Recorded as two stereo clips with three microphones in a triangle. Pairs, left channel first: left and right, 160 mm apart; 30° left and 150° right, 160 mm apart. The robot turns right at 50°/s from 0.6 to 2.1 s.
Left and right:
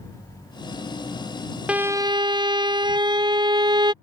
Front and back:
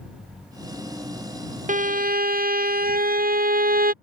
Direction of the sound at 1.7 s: 175° right.